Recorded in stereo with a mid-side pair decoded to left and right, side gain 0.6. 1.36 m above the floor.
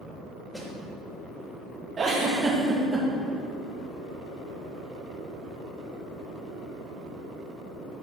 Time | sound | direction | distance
0.5 | a snare drum | straight ahead | 3 m
2.0 | a giggle | 30° right | 2 m